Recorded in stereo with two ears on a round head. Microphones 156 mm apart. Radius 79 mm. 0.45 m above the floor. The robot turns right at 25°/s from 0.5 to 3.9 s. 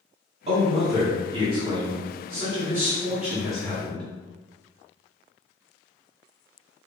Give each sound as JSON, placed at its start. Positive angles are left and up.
{"t": 0.5, "sound": "a man speaking", "azimuth_deg": -75, "distance_m": 1.3}